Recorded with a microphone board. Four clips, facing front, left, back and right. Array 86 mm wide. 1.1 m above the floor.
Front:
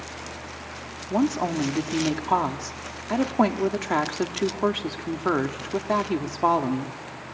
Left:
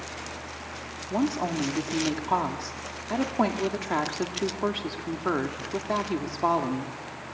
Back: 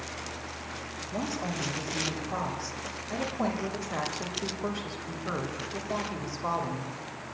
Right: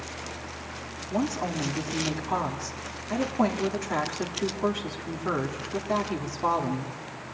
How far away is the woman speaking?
About 2.5 m.